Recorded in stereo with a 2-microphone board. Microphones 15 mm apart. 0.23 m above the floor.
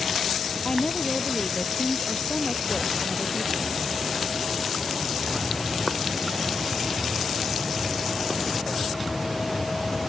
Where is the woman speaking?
65° left (ahead or behind); by 3.8 s 75° left (ahead or behind).